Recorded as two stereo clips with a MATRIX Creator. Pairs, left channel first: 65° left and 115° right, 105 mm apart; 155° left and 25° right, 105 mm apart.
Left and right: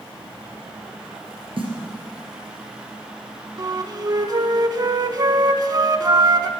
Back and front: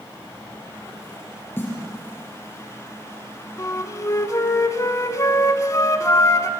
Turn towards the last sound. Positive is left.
turn(degrees=-150)